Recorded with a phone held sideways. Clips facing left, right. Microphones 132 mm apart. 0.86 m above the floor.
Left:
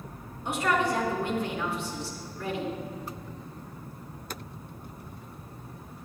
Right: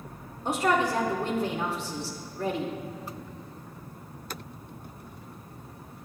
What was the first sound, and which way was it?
A man speaking, 40° right (ahead or behind).